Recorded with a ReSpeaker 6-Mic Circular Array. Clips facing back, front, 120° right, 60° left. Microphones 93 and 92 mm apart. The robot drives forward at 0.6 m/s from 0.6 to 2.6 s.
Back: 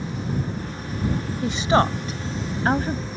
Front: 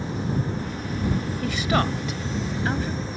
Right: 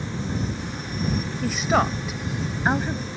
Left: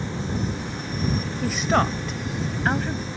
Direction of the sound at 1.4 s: 145° left.